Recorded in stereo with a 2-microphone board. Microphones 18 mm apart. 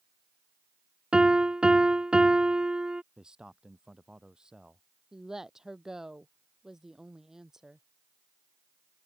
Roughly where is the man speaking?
Right.